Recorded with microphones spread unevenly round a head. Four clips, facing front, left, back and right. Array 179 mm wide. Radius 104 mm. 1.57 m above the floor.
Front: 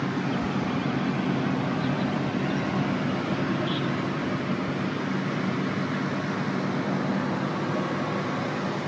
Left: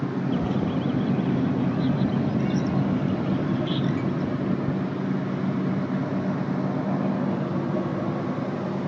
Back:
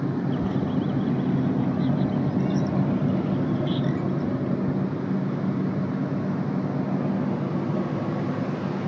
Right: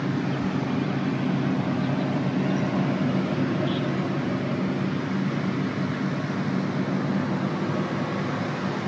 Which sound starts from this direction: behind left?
A bird, at 0.3 s.